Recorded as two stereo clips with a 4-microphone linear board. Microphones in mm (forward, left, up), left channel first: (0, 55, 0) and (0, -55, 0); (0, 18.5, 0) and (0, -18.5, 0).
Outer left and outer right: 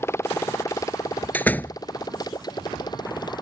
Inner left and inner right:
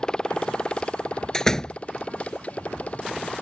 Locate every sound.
0.0 s a motorcycle: 20° left (ahead or behind); by 3.4 s 40° left (ahead or behind)
1.3 s a door slam: 15° left (ahead or behind)